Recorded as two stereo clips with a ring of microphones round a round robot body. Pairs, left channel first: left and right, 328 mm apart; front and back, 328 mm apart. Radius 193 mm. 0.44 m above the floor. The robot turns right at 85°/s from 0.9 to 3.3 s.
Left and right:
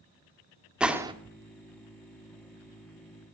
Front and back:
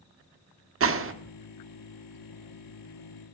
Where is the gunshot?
175° right, 1.6 m; by 1.1 s 155° right, 1.6 m.